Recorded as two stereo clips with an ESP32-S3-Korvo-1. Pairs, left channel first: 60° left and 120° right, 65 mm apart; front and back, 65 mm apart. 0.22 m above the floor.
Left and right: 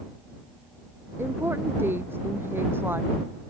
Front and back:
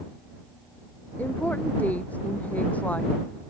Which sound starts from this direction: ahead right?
A woman speaking, at 1.2 s.